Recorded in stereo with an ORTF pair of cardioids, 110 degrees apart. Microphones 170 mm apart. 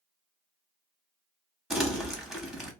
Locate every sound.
1.7 s crumpling: straight ahead, 1.1 m